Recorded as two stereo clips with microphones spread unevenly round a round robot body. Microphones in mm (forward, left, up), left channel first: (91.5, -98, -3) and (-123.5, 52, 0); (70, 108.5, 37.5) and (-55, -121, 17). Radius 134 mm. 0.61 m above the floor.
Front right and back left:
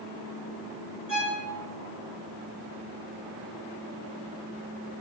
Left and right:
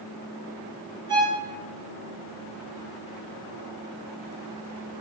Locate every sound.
1.1 s a violin: 50° right, 2.0 m